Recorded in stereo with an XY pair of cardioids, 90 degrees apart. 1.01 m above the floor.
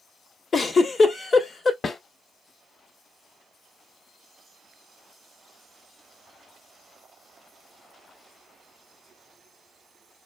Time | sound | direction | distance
0.5 | a giggle | 50° left | 1.8 m
1.8 | a snare drum | 50° left | 2 m